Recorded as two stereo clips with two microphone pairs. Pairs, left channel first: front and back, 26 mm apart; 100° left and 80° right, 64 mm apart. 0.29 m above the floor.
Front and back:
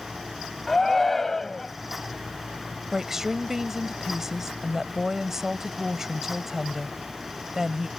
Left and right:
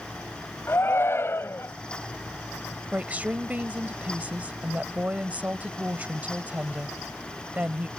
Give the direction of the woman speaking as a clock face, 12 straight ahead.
4 o'clock.